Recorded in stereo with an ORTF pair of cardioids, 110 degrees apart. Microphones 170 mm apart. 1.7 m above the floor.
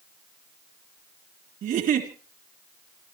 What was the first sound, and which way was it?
A giggle, 60° right.